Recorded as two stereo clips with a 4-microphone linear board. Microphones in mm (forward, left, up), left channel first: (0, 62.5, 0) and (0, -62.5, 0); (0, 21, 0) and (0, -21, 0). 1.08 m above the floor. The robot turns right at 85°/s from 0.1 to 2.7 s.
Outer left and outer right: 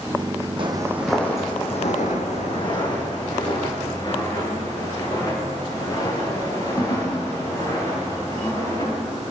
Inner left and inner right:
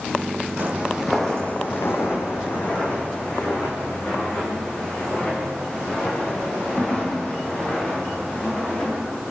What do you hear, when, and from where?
0.6 s footsteps: 45° right (ahead or behind), 3 m; by 9.0 s 30° left (ahead or behind), 9.5 m